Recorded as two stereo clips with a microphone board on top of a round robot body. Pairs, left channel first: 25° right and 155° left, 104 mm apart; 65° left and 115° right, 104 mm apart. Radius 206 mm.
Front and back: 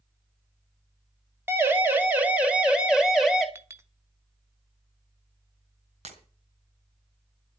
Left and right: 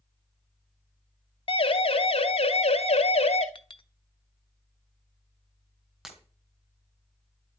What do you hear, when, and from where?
1.5 s a siren: 90° left, 3 m; by 3.5 s 70° left, 3.5 m
3.5 s a clink: 95° left, 1.5 m
6.0 s breaking glass: 160° left, 3 m